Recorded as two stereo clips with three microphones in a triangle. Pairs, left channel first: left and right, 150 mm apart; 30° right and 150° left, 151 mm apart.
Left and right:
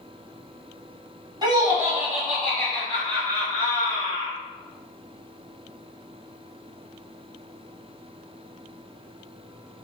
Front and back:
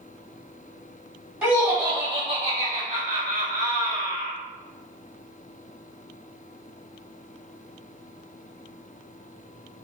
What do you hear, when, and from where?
1.4 s laughter: 125° right, 0.9 m; by 4.3 s 130° left, 1.9 m